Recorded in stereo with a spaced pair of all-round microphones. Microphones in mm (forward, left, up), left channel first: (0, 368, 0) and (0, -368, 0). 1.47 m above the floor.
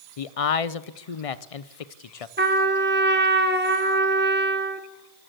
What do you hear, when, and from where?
0.2 s a man speaking: 50° left (ahead or behind), 0.6 m
2.4 s a trumpet: 15° right (ahead or behind), 1.3 m